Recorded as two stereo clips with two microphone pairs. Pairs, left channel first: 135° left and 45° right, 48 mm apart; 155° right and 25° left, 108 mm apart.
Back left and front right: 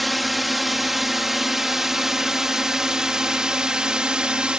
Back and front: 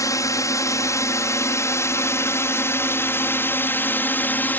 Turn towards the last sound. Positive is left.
turn(degrees=-95)